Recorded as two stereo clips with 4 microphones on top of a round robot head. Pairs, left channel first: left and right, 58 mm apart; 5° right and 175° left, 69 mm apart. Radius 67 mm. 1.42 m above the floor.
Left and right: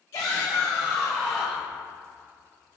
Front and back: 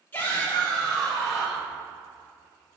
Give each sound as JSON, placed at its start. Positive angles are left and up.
{"t": 0.1, "sound": "a shout", "azimuth_deg": 60, "distance_m": 2.0}